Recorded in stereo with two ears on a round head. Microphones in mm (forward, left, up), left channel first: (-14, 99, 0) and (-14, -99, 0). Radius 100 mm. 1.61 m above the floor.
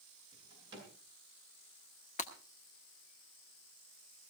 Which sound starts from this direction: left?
Breaking glass, at 2.2 s.